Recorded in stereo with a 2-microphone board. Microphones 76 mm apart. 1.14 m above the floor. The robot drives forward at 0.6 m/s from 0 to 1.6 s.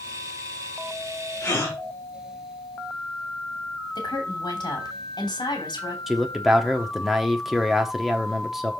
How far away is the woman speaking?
About 3 m.